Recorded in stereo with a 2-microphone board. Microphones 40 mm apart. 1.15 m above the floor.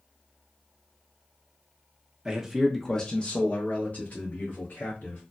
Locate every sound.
2.2 s a man speaking: 20° right (ahead or behind), 0.7 m; by 5.2 s 45° left (ahead or behind), 1.9 m